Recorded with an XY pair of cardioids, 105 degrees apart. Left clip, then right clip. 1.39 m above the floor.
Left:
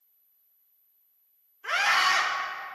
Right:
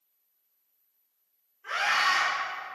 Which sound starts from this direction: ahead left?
A scream, at 1.6 s.